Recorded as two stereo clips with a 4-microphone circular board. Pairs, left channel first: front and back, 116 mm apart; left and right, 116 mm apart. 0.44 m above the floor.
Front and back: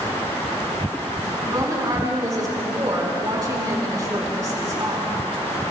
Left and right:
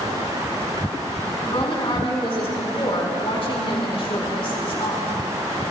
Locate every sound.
1.4 s a woman speaking: 125° left, 4.5 m